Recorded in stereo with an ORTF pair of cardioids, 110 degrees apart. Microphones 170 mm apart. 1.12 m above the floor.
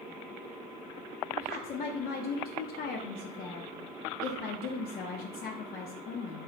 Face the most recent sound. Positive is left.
turn(degrees=65)